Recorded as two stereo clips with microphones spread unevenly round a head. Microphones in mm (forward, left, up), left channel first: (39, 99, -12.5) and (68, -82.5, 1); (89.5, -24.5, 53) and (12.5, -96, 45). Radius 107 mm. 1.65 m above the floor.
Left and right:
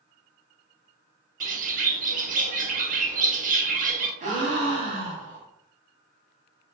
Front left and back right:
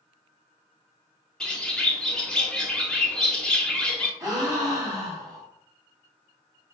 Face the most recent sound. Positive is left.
turn(degrees=-85)